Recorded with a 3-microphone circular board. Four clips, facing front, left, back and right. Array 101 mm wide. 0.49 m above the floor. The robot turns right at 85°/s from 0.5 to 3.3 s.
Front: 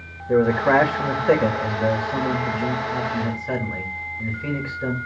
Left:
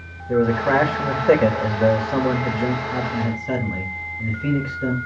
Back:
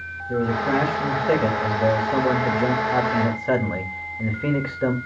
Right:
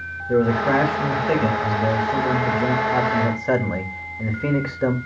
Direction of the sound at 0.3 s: 5° right.